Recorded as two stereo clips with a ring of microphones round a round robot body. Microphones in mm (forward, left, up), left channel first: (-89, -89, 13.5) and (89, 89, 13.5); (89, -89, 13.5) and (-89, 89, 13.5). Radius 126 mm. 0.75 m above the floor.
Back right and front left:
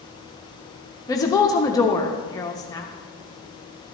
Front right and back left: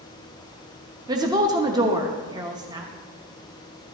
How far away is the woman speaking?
About 0.7 m.